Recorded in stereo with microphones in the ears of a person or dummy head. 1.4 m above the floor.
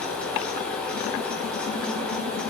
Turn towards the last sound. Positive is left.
turn(degrees=5)  # may be behind; listen again after turning